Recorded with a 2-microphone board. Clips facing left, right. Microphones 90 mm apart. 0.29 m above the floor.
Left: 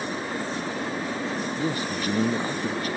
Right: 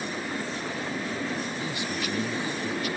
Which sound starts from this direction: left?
A man speaking, at 1.6 s.